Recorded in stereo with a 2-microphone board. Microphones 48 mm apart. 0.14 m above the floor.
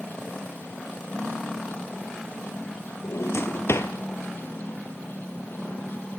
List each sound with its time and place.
3.0 s a drawer: 65° left (ahead or behind), 1.5 m